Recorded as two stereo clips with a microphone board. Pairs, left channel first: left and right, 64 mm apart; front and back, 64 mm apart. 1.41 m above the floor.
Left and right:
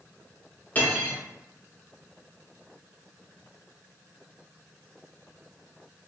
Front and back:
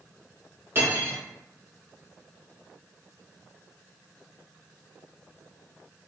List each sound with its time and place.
0.8 s cutlery clinking: 145° left, 0.7 m